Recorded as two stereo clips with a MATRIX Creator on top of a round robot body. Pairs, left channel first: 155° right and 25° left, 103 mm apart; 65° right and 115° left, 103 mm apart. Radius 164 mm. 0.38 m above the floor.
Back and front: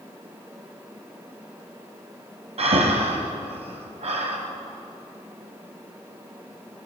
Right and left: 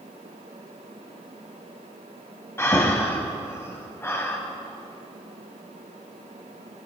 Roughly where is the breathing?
Ahead.